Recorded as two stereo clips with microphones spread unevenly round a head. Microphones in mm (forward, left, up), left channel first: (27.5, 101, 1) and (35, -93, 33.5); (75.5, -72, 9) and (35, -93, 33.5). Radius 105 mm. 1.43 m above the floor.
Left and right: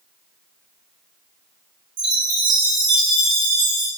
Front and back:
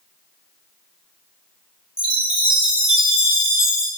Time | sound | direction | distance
2.0 | a chime | 95° right | 1.0 m